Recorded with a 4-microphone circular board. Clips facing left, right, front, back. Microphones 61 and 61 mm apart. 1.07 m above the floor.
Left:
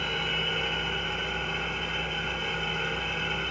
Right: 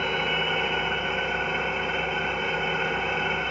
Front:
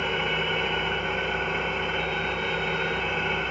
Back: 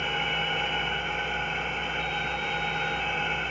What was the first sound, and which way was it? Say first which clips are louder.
An engine running: right 5 dB, front 2 dB; 35° right.